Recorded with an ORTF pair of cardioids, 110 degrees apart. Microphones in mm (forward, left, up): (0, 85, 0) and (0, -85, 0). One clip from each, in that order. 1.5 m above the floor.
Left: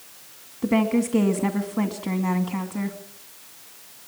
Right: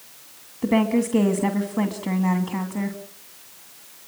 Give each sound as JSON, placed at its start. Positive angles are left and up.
{"t": 0.6, "sound": "a woman speaking", "azimuth_deg": -10, "distance_m": 2.5}